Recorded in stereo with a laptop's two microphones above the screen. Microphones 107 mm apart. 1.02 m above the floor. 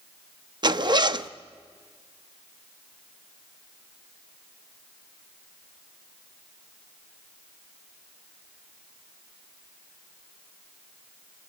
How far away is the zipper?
About 0.6 m.